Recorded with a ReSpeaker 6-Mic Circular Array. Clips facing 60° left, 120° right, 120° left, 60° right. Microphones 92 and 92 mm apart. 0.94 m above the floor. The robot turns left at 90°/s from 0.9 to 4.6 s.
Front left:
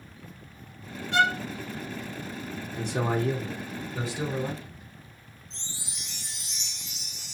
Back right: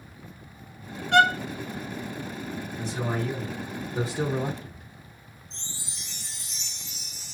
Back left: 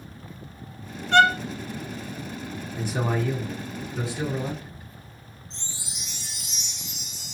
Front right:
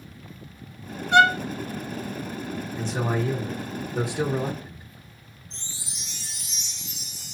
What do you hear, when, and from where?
1.1 s a violin: 135° right, 0.7 m; by 1.4 s 160° right, 0.7 m
2.8 s a man speaking: 60° left, 0.7 m; by 4.9 s 105° right, 0.7 m
5.5 s a chime: 60° left, 1.6 m